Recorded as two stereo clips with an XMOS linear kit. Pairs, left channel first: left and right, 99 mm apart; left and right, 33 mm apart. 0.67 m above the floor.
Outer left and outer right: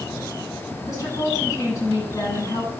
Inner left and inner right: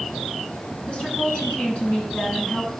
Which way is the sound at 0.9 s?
35° left (ahead or behind).